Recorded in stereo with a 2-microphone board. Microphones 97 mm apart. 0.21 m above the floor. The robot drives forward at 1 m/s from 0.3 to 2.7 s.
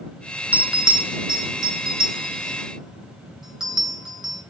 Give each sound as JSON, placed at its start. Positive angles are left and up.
{"t": 0.5, "sound": "a bell", "side_deg": -15, "distance_m": 0.6}